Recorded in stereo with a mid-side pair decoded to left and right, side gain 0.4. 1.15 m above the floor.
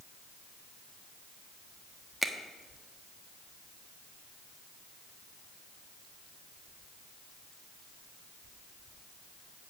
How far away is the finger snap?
About 1.3 m.